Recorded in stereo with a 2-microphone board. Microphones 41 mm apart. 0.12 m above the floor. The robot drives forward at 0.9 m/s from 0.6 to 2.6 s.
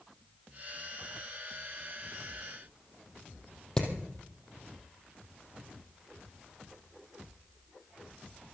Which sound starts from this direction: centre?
Hammering, at 3.8 s.